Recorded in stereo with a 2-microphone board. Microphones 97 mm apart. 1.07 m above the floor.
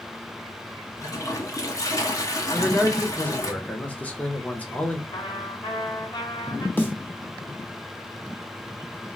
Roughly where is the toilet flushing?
Left.